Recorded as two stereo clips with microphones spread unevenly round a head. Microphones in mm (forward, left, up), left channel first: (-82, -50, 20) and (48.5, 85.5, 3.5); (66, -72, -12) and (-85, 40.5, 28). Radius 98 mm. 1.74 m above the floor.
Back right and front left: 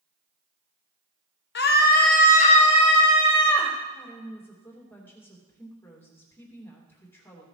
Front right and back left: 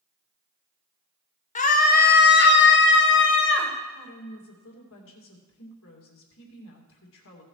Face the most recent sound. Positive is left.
turn(degrees=-55)